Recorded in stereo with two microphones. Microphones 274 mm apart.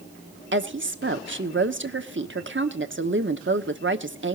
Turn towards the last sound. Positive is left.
turn(degrees=-45)  # may be behind; listen again after turning